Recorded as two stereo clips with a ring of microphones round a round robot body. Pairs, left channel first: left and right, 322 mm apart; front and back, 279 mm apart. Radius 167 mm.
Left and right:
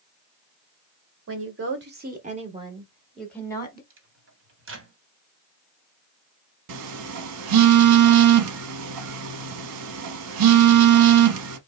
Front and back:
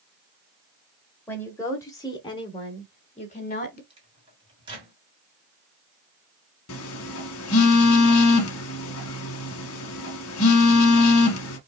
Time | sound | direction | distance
1.3 | a woman speaking | 80° right | 1.6 m
3.9 | a microwave | 115° right | 1.4 m
6.7 | a phone buzzing | 50° right | 0.8 m